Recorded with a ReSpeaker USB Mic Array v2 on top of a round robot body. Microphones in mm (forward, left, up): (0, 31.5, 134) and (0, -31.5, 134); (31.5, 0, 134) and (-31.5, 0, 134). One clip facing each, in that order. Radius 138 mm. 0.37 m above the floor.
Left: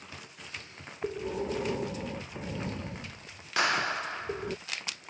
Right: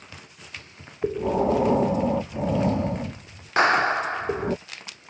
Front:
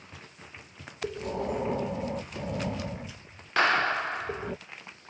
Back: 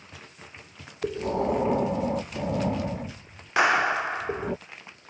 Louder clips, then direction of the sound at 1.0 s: Right 10 dB, back 6 dB; 110° right.